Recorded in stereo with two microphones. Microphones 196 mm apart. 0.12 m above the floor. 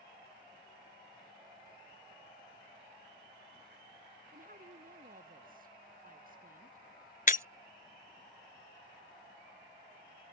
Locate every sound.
4.3 s a woman speaking: 45° right (ahead or behind)
7.3 s breaking glass: 45° left (ahead or behind)